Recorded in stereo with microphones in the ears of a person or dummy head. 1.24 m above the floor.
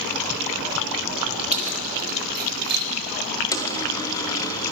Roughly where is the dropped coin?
Left.